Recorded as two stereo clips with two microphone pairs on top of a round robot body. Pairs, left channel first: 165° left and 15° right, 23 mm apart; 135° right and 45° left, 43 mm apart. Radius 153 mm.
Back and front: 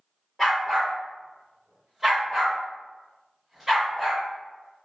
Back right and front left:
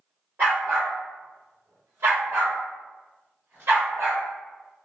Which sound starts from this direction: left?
A dog barking, at 0.4 s.